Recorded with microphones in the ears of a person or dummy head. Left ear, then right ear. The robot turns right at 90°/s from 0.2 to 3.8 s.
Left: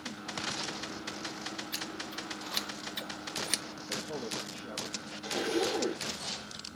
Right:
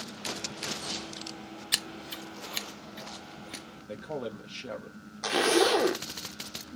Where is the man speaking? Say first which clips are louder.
Right 1 dB; 40° right (ahead or behind), 1.0 m.